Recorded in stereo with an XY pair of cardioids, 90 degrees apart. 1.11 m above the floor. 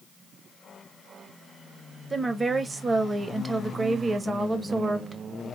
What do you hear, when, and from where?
2.1 s a woman speaking: 30° right, 1.3 m